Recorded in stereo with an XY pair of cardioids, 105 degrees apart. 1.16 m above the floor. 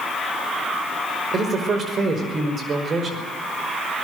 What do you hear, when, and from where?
1.3 s a man speaking: 45° right, 5 m